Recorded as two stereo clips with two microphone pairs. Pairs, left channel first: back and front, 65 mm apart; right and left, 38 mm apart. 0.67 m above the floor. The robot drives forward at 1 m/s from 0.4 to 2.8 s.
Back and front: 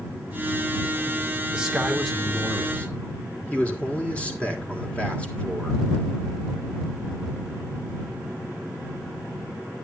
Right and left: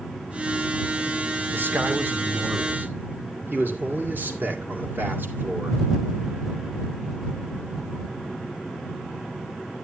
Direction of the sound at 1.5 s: 75° left.